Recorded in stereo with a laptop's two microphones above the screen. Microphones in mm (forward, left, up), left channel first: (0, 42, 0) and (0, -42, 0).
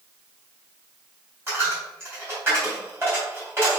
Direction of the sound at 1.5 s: 30° right (ahead or behind).